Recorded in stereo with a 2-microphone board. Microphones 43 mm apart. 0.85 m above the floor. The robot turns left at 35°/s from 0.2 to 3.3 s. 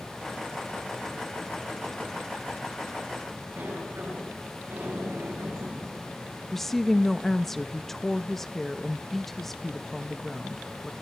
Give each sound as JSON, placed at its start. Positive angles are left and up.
{"t": 3.6, "sound": "a sliding door", "side_deg": -55, "distance_m": 10.0}
{"t": 6.5, "sound": "a woman speaking", "side_deg": 5, "distance_m": 0.7}